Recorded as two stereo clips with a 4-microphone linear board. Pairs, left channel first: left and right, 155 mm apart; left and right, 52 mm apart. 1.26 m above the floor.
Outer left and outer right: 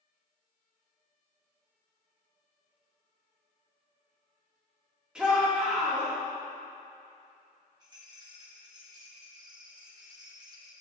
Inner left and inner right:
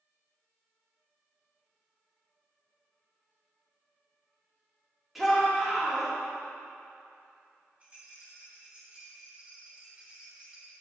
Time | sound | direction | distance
5.2 | a shout | 5° right (ahead or behind) | 2 m
7.8 | a rattle | 25° right (ahead or behind) | 1.3 m